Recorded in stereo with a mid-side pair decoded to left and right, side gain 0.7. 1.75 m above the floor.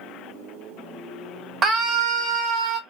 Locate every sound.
1.6 s a scream: 40° right, 1.0 m; by 2.8 s 60° right, 1.9 m